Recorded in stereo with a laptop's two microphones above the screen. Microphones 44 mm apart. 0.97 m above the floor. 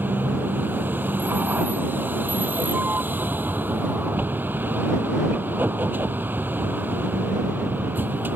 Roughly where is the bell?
No bell in this recording.